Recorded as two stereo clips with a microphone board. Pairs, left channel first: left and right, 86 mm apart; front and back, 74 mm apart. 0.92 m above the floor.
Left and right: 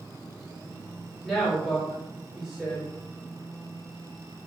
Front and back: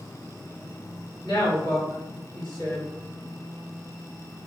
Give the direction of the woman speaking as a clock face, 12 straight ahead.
12 o'clock.